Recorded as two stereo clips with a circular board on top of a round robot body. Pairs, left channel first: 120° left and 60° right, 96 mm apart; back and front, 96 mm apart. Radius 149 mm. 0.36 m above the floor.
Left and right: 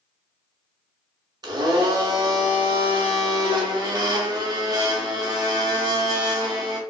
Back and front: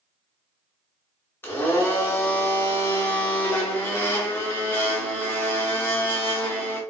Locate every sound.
1.4 s a blender: 110° right, 0.5 m